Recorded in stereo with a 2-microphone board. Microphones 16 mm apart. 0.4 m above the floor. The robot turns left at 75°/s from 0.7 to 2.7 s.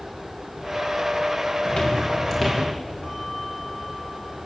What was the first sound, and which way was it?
Footsteps, 85° left.